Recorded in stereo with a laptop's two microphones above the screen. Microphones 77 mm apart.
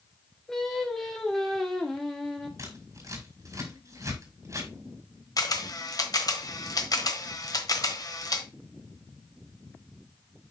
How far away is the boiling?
No boiling in this recording.